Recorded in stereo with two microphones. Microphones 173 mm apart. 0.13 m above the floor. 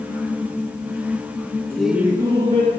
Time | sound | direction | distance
1.7 | laughter | 10° left (ahead or behind) | 1.1 m